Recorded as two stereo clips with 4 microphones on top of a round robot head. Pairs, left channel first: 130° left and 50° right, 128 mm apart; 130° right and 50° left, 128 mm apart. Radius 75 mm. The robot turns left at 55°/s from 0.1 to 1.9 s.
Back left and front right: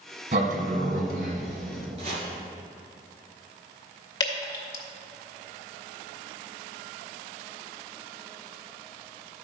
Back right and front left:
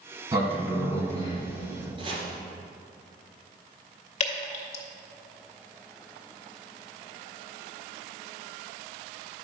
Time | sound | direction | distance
0.3 | a sliding door | 15° right | 2.0 m
2.0 | chopping | 5° right | 3 m
4.2 | dripping | 170° right | 1.8 m